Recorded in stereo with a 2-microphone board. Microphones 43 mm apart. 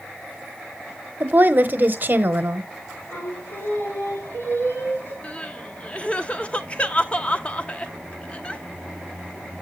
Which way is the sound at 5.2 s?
30° left (ahead or behind).